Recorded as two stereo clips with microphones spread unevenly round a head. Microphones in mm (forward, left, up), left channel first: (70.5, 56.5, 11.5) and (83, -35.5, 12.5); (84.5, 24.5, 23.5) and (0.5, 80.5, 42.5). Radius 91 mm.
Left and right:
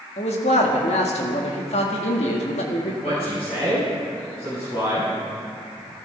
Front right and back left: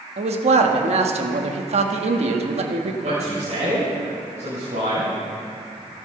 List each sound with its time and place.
0.2 s a man speaking: 130° left, 1.6 m
3.0 s a man speaking: 140° left, 7 m